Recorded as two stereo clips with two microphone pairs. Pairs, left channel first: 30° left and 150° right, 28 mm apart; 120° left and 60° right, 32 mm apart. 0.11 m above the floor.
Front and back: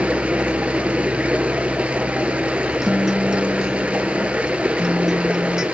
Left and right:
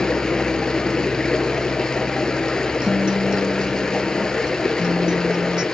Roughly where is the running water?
Behind.